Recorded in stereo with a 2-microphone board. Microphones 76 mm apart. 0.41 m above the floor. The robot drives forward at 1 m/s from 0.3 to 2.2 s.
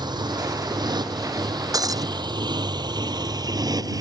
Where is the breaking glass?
50° right (ahead or behind).